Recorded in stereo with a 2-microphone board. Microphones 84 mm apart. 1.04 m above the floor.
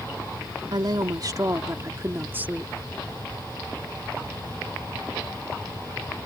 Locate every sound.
0.7 s a woman speaking: 60° right (ahead or behind); by 2.7 s 15° right (ahead or behind)